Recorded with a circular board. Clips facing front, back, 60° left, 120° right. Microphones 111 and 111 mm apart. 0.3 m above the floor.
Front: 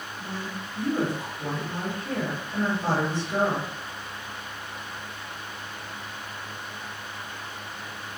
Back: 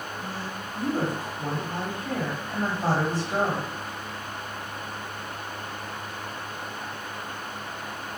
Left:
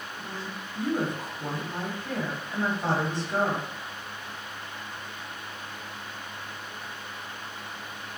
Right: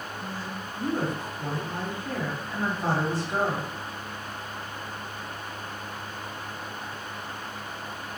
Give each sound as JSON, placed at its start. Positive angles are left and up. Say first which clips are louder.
{"t": 0.2, "sound": "a woman speaking", "louder": "back 1 dB, right 1 dB", "azimuth_deg": 155, "distance_m": 1.7}